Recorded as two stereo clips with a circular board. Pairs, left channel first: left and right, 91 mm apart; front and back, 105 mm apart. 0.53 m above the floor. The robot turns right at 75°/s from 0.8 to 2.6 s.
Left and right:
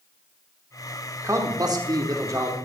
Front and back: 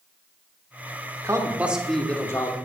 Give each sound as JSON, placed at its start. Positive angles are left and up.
{"t": 1.2, "sound": "a man speaking", "azimuth_deg": -135, "distance_m": 1.2}